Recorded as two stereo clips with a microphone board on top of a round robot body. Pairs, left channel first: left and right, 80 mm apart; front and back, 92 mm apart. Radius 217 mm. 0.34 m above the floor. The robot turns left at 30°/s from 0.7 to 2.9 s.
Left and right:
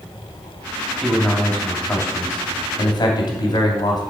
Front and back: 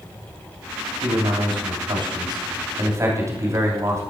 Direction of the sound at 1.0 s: Straight behind.